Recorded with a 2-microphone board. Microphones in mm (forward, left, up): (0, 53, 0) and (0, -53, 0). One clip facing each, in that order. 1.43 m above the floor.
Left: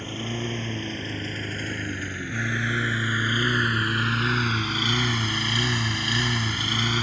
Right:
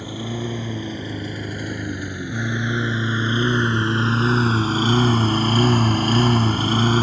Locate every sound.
0.0 s a lawn mower: 10° right (ahead or behind); by 7.0 s 40° right (ahead or behind)